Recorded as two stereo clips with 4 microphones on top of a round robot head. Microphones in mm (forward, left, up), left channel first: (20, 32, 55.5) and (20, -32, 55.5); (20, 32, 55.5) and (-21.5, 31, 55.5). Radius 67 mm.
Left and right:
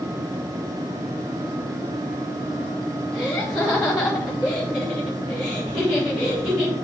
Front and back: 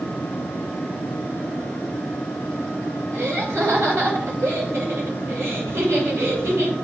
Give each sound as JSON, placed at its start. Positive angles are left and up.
{"t": 3.1, "sound": "laughter", "azimuth_deg": -175, "distance_m": 2.5}